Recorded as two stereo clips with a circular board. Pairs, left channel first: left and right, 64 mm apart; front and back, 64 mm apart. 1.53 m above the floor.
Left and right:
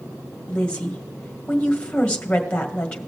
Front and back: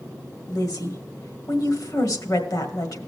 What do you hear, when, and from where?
0.5 s a woman speaking: 15° left, 1.6 m